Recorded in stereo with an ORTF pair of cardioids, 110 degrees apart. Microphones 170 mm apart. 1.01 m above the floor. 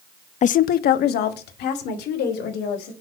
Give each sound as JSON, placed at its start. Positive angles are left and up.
{"t": 0.4, "sound": "a woman speaking", "azimuth_deg": 45, "distance_m": 0.6}